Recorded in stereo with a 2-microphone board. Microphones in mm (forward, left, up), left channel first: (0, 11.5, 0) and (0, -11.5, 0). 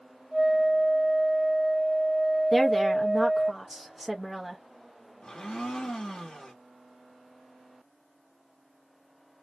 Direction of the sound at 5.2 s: 50° left (ahead or behind).